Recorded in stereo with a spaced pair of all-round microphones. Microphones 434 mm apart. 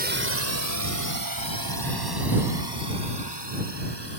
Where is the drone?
20° right (ahead or behind); by 4.2 s 70° right (ahead or behind).